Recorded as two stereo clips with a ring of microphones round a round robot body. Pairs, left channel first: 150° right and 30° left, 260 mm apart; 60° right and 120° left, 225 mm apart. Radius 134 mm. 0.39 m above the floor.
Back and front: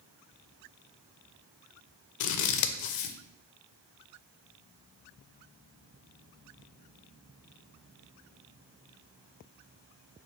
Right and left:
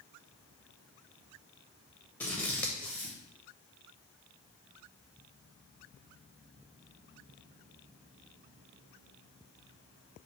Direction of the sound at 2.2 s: 145° right.